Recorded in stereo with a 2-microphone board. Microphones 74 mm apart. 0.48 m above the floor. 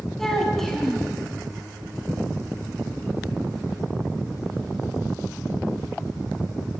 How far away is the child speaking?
About 3.5 m.